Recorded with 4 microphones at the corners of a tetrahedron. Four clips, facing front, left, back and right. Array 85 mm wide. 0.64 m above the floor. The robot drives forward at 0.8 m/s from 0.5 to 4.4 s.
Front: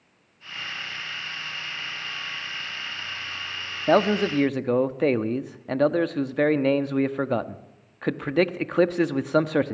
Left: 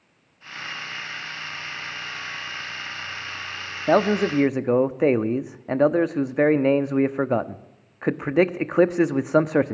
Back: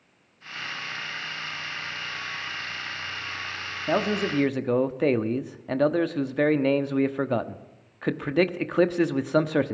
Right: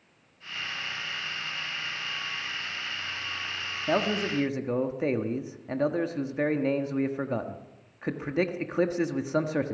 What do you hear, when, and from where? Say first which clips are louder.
3.9 s a man speaking: left 8 dB, front 5 dB; 45° left, 0.9 m; by 9.8 s 85° left, 0.8 m